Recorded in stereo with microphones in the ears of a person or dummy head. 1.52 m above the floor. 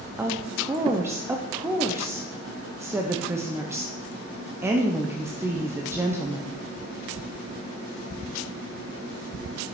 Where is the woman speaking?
15° right (ahead or behind), 0.7 m.